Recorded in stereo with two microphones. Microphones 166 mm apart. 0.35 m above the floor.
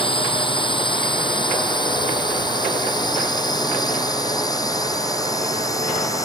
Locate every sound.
0.0 s a drone: 30° left (ahead or behind); by 6.2 s 20° left (ahead or behind)